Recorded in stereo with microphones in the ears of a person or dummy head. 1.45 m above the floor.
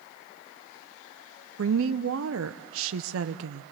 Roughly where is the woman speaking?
Right.